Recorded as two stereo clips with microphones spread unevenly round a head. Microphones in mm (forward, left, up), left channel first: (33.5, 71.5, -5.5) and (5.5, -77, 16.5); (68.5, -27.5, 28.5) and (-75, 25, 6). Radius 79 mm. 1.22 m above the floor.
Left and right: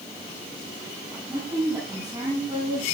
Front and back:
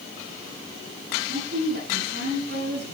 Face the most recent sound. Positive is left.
turn(degrees=-175)